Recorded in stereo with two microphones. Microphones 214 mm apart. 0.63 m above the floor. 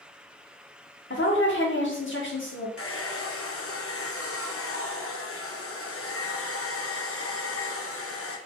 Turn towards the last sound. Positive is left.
turn(degrees=85)